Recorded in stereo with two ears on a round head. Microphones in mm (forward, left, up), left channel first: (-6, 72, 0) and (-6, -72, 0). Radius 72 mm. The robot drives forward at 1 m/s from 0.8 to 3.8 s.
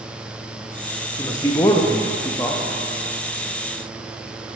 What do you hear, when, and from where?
1.2 s a man speaking: 15° left (ahead or behind), 0.9 m